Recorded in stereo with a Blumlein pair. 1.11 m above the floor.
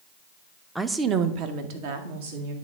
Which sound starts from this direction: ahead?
A woman speaking, at 0.8 s.